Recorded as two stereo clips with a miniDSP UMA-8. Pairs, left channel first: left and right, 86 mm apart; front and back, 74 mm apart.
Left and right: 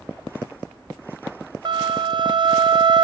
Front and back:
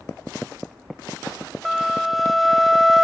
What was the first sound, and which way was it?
A flute, 90° right.